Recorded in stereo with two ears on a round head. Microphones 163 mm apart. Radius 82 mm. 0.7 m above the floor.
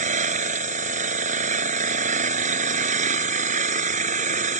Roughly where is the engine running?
Right.